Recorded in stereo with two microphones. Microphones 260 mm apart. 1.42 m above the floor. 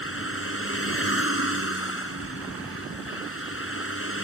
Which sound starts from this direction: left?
A vehicle, at 0.0 s.